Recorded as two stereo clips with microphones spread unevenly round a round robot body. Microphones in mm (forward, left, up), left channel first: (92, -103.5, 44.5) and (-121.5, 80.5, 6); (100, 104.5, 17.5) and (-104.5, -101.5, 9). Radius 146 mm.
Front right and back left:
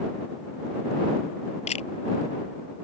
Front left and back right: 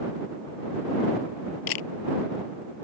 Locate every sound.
1.7 s a camera shutter: 25° left